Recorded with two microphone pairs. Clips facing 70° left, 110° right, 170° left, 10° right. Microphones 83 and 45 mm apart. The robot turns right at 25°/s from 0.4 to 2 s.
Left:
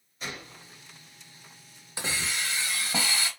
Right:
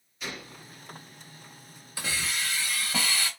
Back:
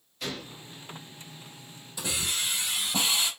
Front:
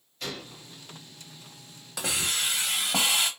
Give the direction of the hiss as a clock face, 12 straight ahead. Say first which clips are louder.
Even, front 2 dB; 12 o'clock.